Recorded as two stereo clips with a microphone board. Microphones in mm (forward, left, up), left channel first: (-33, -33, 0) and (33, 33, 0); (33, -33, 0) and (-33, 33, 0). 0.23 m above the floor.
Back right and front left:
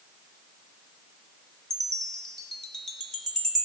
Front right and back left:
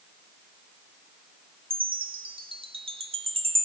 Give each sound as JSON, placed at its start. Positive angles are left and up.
{"t": 1.7, "sound": "a chime", "azimuth_deg": 140, "distance_m": 0.8}